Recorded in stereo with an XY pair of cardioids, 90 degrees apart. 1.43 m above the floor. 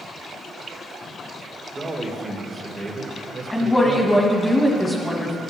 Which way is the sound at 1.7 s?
20° right.